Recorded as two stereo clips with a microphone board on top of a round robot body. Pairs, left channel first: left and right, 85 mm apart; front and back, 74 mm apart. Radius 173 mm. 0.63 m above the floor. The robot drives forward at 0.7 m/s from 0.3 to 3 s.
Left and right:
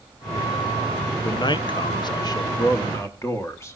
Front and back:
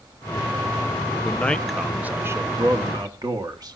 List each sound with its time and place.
1.2 s a man speaking: 60° left, 0.8 m; by 3.8 s 150° left, 1.2 m